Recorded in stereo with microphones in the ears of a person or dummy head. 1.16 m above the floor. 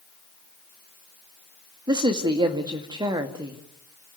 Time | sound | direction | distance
1.9 | a man speaking | 25° right (ahead or behind) | 2 m